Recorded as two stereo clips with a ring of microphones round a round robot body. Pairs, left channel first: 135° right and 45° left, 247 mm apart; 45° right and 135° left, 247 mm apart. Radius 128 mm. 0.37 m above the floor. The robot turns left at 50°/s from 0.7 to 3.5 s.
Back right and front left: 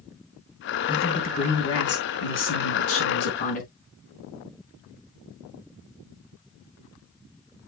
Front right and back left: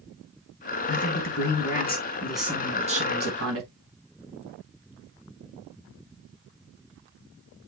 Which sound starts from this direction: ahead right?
A man speaking, at 0.9 s.